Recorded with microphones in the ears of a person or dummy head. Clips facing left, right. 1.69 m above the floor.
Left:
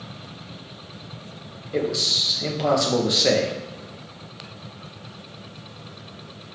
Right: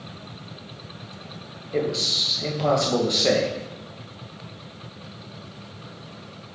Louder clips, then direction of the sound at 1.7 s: Even; centre (ahead or behind).